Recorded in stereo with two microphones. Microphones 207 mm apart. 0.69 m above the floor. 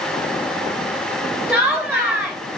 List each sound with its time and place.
1.5 s laughter: 10° right (ahead or behind), 4.5 m